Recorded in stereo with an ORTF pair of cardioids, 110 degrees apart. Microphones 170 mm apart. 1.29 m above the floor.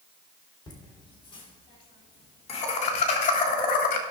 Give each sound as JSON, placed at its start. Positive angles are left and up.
{"t": 0.7, "sound": "laughter", "azimuth_deg": 25, "distance_m": 4.5}